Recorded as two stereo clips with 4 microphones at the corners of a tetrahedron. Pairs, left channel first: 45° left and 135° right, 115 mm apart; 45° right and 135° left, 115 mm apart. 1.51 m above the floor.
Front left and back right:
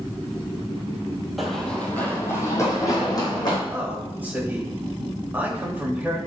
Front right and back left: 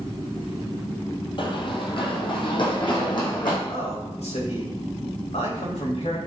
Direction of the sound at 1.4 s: 45° right.